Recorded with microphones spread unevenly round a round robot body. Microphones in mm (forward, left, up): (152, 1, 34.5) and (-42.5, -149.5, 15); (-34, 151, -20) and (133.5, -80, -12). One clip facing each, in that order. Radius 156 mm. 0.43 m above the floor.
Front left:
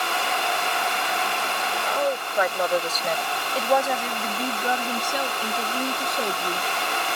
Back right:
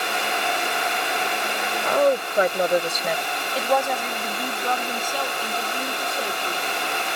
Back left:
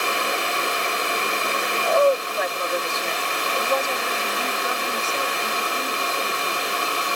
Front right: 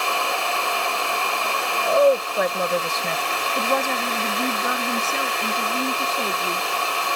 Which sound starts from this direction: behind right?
A woman speaking, at 1.9 s.